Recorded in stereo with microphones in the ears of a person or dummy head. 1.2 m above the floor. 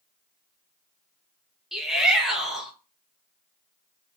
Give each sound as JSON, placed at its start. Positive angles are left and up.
{"t": 1.7, "sound": "a shout", "side_deg": -5, "distance_m": 0.8}